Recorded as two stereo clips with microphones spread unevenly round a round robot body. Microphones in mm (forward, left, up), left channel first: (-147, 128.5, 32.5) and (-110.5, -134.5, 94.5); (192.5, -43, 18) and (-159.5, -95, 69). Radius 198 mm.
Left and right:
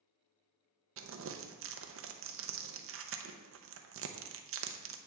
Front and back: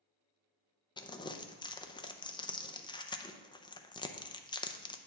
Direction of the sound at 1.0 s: 55° right.